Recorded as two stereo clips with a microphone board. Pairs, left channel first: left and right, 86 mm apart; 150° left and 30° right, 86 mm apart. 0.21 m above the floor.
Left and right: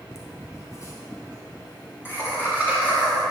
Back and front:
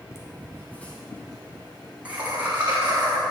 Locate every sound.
0.1 s laughter: 115° left, 1.7 m; by 3.2 s 20° left, 2 m